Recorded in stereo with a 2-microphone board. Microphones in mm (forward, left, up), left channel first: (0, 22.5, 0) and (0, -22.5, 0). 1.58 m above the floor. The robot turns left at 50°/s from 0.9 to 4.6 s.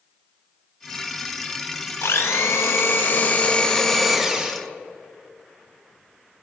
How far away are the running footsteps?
No running footsteps in this recording.